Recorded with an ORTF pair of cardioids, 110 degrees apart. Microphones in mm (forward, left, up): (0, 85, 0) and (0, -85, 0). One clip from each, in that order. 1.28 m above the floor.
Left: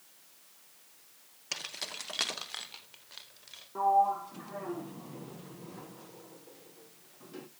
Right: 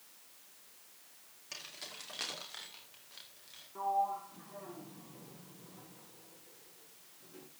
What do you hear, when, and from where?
1.5 s keys jangling: 55° left, 1.7 m; by 3.6 s 40° left, 4.5 m
3.8 s a sliding door: 45° left, 0.9 m